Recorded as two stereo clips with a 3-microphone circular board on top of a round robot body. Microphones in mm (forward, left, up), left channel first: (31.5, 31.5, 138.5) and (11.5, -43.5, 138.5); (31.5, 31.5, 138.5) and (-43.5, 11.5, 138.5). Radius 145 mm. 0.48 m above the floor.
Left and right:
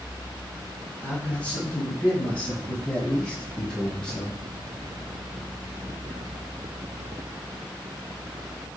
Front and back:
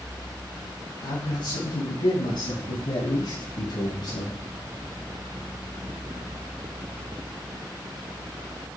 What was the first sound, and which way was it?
A man speaking, 5° left.